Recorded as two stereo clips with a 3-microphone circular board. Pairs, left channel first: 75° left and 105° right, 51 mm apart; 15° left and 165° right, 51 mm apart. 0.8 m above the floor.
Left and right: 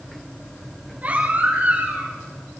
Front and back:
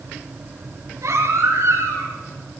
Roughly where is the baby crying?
Behind.